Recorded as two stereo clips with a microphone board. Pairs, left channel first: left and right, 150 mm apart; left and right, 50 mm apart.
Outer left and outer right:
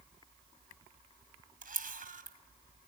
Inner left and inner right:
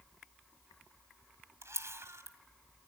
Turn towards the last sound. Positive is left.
turn(degrees=-65)  # may be behind; listen again after turning